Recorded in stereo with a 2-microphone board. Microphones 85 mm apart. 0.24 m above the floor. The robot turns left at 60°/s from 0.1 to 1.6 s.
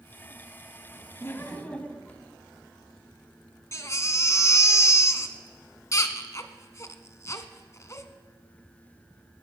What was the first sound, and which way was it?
Laughter, 30° left (ahead or behind).